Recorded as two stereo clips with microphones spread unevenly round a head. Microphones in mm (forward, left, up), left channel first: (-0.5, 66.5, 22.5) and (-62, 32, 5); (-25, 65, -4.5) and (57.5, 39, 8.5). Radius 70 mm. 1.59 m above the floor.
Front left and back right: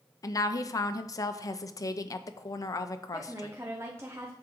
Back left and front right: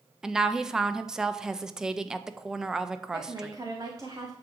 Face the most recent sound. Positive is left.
turn(degrees=-85)